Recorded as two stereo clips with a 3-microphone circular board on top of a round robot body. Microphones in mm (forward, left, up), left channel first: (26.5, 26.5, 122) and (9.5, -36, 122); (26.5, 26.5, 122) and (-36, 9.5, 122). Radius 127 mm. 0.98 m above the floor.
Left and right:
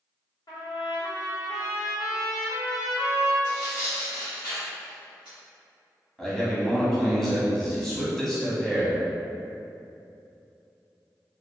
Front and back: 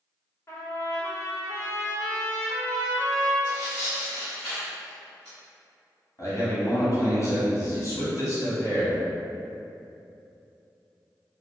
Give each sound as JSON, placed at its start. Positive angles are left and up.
{"t": 0.5, "sound": "a trumpet", "azimuth_deg": 65, "distance_m": 1.0}
{"t": 3.4, "sound": "tearing paper", "azimuth_deg": 90, "distance_m": 1.2}
{"t": 6.2, "sound": "a man speaking", "azimuth_deg": -5, "distance_m": 1.2}